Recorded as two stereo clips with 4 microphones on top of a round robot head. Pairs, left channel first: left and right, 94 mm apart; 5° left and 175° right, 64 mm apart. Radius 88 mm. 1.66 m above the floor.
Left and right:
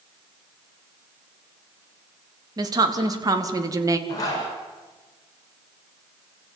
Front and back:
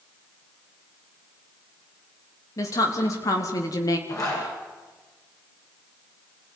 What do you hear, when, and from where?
2.6 s a woman speaking: 40° right, 3.5 m; by 4.0 s 35° right, 2 m
4.1 s a zipper: 40° left, 8.5 m